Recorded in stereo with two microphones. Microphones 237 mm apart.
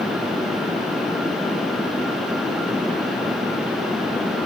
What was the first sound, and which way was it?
Only background noise.